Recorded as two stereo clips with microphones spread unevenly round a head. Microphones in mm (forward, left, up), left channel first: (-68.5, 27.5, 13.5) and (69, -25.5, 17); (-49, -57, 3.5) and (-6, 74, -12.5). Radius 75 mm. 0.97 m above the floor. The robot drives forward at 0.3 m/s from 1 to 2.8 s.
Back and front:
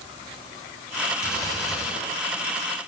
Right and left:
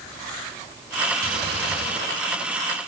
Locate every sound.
1.2 s a gunshot: 90° left, 6 m